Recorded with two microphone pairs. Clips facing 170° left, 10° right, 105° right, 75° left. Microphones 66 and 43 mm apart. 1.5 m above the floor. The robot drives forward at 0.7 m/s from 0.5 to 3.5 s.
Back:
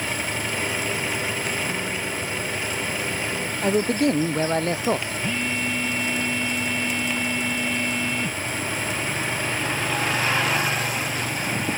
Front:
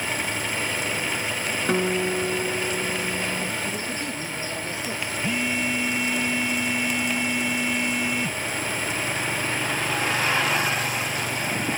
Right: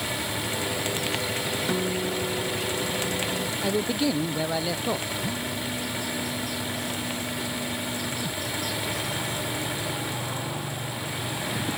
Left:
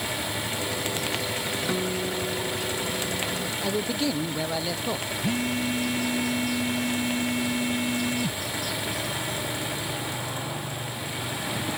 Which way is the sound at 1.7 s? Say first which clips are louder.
Front 5 dB, right 1 dB; 15° right.